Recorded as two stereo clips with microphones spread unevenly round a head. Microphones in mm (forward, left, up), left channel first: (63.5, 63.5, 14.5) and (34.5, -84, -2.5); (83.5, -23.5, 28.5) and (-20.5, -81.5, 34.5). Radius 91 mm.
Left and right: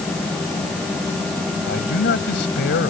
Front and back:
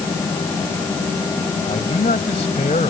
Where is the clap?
No clap in this recording.